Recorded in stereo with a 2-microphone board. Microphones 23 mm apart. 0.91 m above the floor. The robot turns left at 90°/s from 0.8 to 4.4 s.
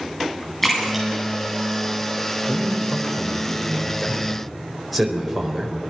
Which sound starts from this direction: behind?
A man speaking, at 2.5 s.